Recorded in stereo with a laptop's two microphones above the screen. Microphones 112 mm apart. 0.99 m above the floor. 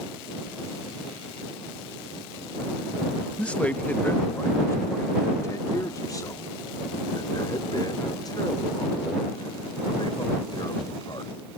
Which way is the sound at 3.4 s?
10° left (ahead or behind).